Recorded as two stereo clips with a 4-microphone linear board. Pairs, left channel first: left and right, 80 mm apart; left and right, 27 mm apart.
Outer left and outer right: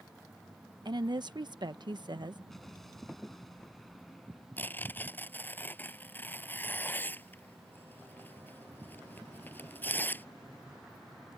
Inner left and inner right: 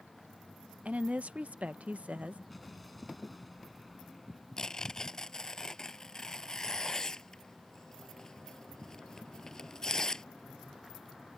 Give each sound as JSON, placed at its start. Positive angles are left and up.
{"t": 0.8, "sound": "a woman speaking", "side_deg": -70}
{"t": 2.5, "sound": "an explosion", "side_deg": 5}
{"t": 4.6, "sound": "tearing paper", "side_deg": 25}